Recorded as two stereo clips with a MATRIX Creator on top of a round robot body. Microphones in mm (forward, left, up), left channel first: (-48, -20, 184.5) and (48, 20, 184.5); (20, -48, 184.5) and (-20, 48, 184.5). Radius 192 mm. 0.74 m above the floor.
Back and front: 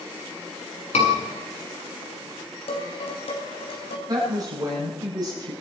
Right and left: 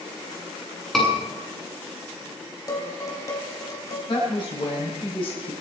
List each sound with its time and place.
0.9 s a scream: 155° right, 9 m
2.7 s dishes clattering: 125° right, 4 m
4.1 s a woman speaking: 30° right, 6.5 m